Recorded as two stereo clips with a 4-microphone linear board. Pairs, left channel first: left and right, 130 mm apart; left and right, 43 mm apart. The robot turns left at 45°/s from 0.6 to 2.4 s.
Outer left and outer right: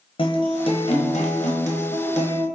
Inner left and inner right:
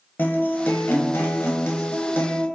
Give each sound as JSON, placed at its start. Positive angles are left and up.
{"t": 0.2, "sound": "a guitar", "azimuth_deg": 135, "distance_m": 1.0}